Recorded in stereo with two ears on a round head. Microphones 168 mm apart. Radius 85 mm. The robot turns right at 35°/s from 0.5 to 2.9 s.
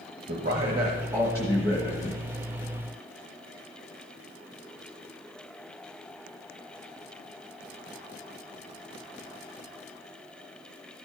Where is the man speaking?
40° right, 1.1 m; by 2.2 s 20° left, 1.1 m.